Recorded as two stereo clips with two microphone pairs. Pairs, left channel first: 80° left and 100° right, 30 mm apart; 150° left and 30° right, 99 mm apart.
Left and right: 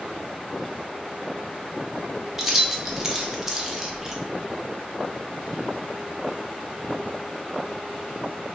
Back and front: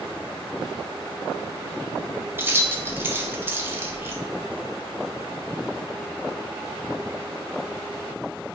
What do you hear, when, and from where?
2.4 s keys jangling: 45° right, 0.7 m